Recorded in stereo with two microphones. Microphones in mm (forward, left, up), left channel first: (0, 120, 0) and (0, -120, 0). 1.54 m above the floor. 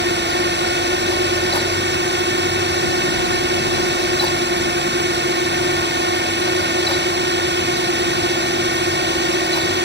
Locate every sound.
0.0 s a drone: 45° right (ahead or behind)